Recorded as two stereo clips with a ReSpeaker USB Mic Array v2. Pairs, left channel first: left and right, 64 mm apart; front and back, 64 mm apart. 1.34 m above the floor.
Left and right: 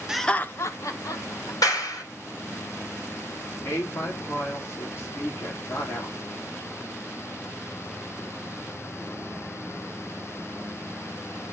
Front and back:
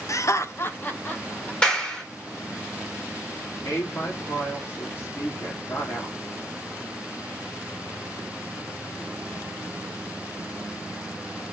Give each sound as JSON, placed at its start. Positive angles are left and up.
{"t": 0.1, "sound": "laughter", "azimuth_deg": -10, "distance_m": 0.6}
{"t": 1.6, "sound": "a clap", "azimuth_deg": 70, "distance_m": 3.0}
{"t": 3.6, "sound": "a woman speaking", "azimuth_deg": 50, "distance_m": 2.0}